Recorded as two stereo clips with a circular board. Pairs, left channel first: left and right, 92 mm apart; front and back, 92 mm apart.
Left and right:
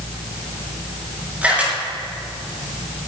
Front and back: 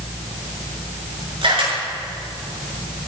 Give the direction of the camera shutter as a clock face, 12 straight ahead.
5 o'clock.